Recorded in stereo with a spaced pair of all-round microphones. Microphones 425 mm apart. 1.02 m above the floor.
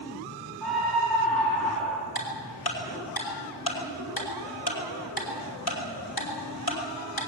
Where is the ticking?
55° left (ahead or behind), 5 m.